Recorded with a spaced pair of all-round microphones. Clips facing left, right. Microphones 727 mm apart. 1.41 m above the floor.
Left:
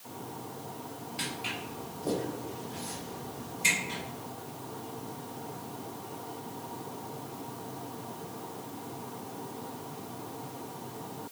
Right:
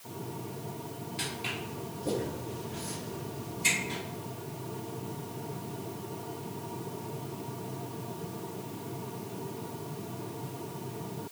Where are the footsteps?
15° right (ahead or behind), 1.4 m; by 4.0 s 25° left (ahead or behind), 3 m.